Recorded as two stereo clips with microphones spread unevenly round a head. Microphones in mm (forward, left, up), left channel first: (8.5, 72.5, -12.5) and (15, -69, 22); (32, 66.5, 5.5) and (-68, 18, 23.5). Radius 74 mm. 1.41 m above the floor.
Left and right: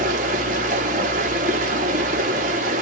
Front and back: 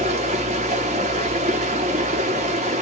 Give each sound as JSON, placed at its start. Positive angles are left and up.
{"t": 0.0, "sound": "running water", "azimuth_deg": -115, "distance_m": 0.7}